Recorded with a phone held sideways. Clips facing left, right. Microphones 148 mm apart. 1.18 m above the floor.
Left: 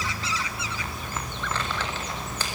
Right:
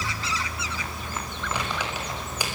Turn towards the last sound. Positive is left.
turn(degrees=-15)  # may be behind; listen again after turning